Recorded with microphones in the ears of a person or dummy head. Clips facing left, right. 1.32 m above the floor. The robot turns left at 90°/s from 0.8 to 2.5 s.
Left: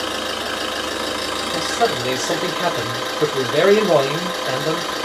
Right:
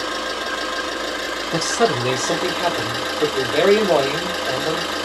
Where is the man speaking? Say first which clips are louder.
Right 2 dB; 105° right, 0.6 m; by 4.9 s 170° left, 0.6 m.